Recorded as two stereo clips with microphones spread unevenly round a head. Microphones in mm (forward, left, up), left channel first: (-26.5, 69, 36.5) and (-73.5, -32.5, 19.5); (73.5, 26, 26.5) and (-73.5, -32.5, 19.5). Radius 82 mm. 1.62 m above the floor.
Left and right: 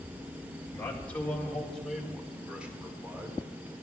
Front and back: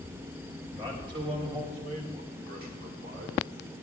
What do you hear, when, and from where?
0.7 s a man speaking: 140° left, 2.5 m; by 3.4 s straight behind, 2.5 m